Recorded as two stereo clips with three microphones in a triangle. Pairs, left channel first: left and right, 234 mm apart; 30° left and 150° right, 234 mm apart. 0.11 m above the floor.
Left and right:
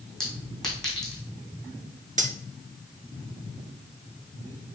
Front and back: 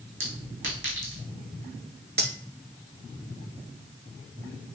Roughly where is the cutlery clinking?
Behind right.